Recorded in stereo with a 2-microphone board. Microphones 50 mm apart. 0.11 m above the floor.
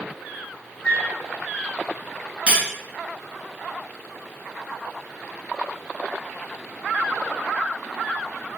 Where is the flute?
20° left (ahead or behind), 0.5 m.